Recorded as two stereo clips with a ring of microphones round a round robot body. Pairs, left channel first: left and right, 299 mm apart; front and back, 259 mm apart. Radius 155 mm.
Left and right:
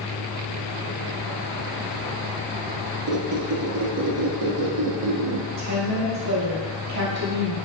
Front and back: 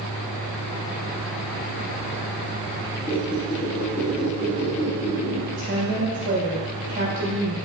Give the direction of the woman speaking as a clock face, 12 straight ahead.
4 o'clock.